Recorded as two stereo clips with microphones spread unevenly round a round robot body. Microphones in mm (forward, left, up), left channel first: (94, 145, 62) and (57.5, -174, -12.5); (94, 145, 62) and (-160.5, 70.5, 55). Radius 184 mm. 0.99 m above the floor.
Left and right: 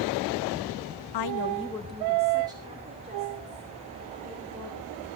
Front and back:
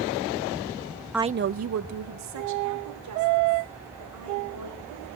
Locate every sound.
1.1 s a woman speaking: 110° left, 0.5 m; by 5.2 s 165° right, 6 m